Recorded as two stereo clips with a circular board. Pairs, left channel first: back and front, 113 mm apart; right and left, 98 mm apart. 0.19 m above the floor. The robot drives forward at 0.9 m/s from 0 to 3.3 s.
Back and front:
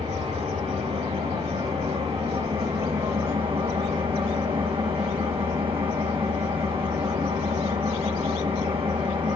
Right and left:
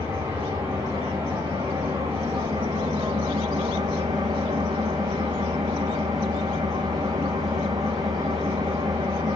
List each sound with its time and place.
0.0 s an engine running: 20° left, 5.5 m; by 9.3 s 40° left, 3 m